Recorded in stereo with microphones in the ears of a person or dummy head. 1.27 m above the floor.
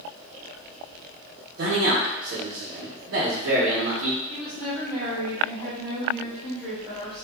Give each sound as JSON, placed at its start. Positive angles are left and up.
{"t": 1.6, "sound": "a man speaking", "side_deg": -85, "distance_m": 0.8}
{"t": 4.3, "sound": "a woman speaking", "side_deg": 10, "distance_m": 1.1}